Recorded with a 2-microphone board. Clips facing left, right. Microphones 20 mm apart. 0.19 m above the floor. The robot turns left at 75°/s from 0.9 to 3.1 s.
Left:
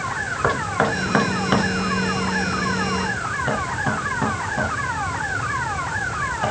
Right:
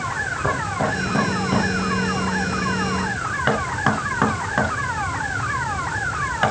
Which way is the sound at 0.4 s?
55° left (ahead or behind).